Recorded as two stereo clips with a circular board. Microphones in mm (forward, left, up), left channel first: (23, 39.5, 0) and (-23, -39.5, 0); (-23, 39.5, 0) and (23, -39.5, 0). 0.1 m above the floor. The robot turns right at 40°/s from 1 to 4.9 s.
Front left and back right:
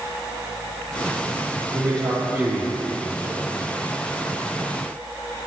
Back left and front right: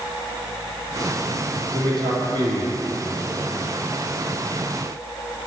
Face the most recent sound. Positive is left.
turn(degrees=50)